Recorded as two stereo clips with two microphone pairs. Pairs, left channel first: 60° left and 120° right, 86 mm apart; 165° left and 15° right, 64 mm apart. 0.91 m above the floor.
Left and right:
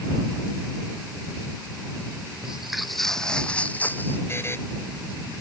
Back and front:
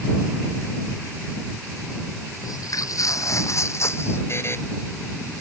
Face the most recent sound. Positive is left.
turn(degrees=120)